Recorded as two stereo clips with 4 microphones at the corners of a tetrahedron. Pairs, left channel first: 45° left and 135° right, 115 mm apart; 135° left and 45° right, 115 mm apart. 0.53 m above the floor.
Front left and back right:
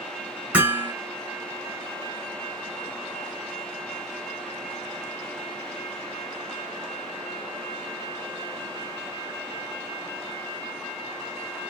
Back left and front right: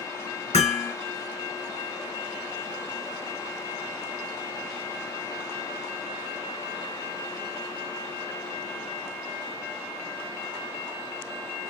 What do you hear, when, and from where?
0.5 s hammering: 145° left, 3 m